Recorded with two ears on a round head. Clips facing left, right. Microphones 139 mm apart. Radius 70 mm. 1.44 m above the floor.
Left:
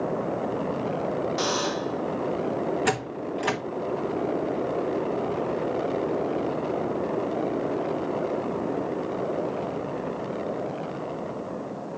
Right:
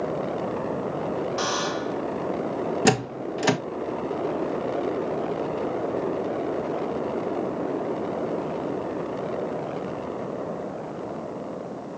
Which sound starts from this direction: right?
A door slam, at 2.9 s.